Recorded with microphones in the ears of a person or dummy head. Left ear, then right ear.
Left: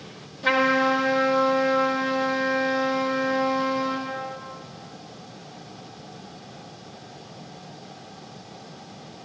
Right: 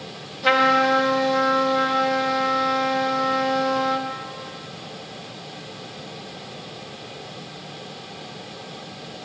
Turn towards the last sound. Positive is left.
turn(degrees=-15)  # may be behind; listen again after turning